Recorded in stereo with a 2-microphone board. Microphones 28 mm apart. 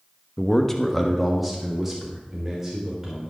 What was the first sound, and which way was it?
A man speaking, 20° left (ahead or behind).